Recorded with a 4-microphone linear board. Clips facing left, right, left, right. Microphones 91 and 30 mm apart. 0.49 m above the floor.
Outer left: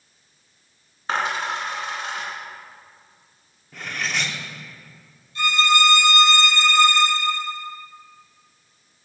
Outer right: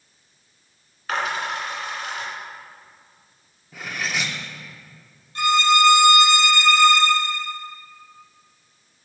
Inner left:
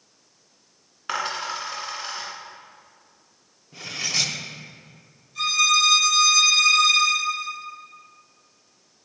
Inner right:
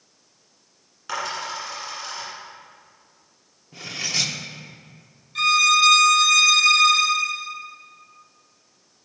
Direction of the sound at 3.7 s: 5° right (ahead or behind).